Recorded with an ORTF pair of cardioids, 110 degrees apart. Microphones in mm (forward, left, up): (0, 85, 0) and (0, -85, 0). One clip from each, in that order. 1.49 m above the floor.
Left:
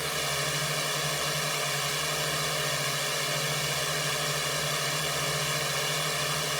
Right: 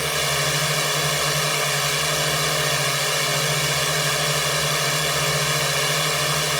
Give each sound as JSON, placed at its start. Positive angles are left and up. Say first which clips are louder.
{"t": 0.0, "sound": "a drone", "louder": "right 8 dB", "azimuth_deg": -45}